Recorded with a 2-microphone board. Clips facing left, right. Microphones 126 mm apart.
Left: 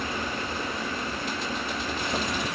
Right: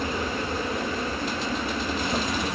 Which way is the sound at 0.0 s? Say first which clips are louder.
Right 3 dB; 40° right (ahead or behind).